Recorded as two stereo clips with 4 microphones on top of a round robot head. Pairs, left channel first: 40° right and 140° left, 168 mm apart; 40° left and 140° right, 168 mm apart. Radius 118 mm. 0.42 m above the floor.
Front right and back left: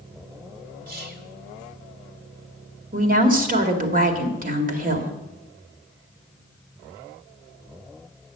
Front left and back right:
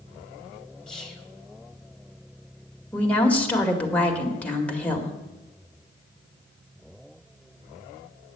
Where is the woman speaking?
120° left, 2 m.